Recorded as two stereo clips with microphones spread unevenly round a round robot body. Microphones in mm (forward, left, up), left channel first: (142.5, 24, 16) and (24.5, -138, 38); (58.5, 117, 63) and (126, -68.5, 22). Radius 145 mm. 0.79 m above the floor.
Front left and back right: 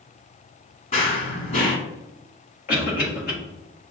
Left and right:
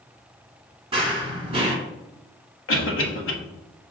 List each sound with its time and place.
0.9 s running footsteps: straight ahead, 1.5 m
2.7 s a cough: 95° left, 1.4 m